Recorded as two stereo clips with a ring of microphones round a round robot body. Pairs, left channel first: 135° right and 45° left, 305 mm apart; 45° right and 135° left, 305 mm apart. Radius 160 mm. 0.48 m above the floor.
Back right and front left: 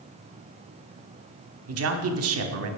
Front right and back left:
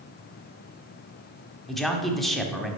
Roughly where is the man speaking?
Ahead left.